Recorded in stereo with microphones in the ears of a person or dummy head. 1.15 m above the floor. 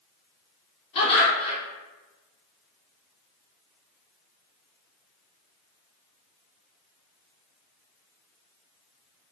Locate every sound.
0.9 s laughter: 35° left (ahead or behind), 1.1 m